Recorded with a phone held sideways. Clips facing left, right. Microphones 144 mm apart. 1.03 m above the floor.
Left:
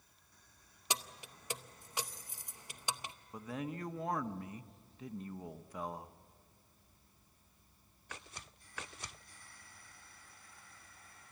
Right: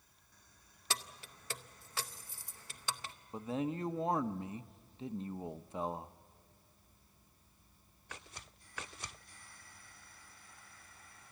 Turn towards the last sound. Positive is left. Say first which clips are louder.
# right 5 dB
turn(degrees=-25)  # may be behind; listen again after turning